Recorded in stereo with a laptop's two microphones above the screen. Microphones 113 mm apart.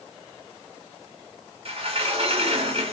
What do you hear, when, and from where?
1.6 s a sliding door: 55° right (ahead or behind), 0.9 m